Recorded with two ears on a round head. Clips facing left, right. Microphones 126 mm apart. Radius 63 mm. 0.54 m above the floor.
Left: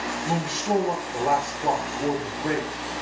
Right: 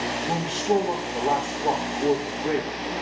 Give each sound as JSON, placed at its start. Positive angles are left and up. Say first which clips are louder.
{"t": 0.2, "sound": "a man speaking", "louder": "right 1 dB", "side_deg": 80, "distance_m": 8.0}